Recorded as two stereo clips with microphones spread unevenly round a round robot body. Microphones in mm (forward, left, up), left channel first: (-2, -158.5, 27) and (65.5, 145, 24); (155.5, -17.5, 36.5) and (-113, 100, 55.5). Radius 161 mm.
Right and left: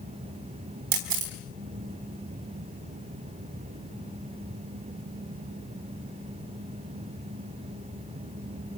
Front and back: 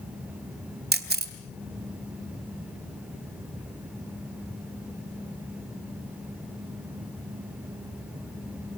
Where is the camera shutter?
100° left, 2.5 m.